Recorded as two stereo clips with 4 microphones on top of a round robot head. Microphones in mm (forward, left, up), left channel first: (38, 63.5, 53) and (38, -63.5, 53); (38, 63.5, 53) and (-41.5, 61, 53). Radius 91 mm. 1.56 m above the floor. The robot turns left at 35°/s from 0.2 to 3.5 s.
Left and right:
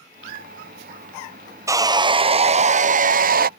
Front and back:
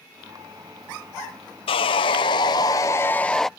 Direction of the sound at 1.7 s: 20° right.